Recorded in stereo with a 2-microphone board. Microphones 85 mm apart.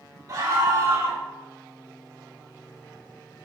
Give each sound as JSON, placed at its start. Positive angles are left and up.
{"t": 0.3, "sound": "a scream", "side_deg": -45, "distance_m": 1.8}